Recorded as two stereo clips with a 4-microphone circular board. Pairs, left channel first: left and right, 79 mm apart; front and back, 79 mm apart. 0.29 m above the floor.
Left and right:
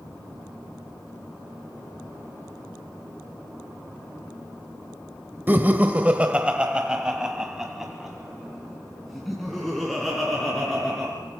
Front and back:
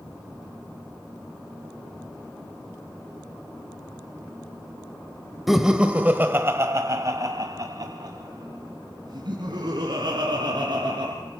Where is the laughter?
95° right, 1.0 m; by 11.1 s 175° left, 3.5 m.